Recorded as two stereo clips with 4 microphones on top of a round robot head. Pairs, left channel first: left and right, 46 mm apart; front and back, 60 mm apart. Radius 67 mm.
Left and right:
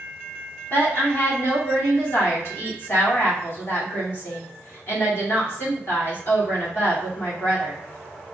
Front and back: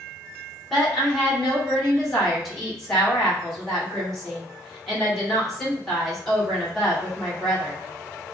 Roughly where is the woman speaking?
Left.